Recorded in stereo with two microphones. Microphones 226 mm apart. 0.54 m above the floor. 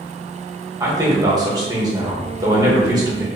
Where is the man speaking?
15° right (ahead or behind), 1.0 m.